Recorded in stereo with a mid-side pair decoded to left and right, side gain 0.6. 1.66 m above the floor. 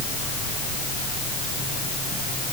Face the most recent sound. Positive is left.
No sound to turn to.